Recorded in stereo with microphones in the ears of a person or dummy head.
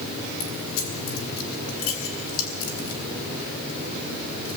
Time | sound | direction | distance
0.4 | keys jangling | 80° left | 3.5 m